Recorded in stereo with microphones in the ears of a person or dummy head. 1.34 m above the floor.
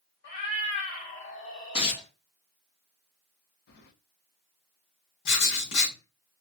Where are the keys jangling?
60° left (ahead or behind), 0.5 m.